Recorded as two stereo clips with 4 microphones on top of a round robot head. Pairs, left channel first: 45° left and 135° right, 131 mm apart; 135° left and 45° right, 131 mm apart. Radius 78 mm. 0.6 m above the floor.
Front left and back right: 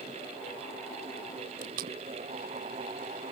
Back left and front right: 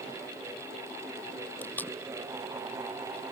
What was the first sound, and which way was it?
Tape being pulled, 150° right.